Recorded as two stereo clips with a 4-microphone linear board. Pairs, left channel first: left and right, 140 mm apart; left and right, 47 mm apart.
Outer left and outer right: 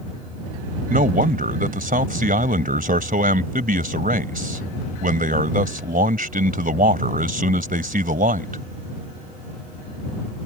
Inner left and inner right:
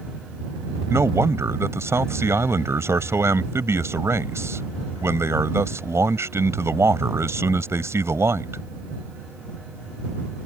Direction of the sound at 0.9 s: 75° right (ahead or behind).